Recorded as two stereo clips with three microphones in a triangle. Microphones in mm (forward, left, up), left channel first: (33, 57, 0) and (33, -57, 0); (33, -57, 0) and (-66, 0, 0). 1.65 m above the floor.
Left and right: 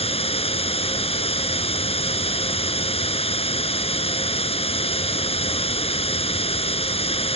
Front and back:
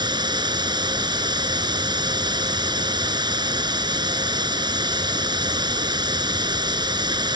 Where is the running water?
105° left.